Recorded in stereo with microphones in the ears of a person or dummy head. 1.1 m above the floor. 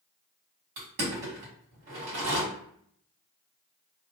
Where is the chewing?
I don't hear chewing.